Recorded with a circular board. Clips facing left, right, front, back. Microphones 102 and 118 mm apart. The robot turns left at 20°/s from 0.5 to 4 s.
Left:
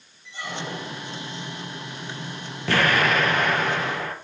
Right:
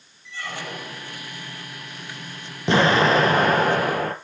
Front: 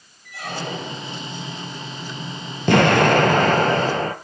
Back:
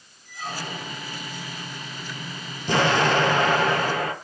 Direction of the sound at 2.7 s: 20° right.